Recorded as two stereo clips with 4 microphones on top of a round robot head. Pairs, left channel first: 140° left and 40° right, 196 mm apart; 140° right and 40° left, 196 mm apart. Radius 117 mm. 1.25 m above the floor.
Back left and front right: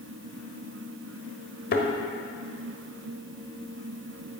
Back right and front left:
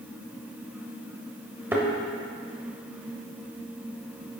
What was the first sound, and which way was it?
A thud, 115° left.